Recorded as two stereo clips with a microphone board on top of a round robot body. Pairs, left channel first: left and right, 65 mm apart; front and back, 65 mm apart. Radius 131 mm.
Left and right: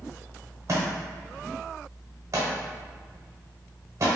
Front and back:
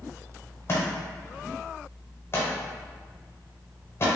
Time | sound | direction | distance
0.7 | a thud | 50° right | 0.9 m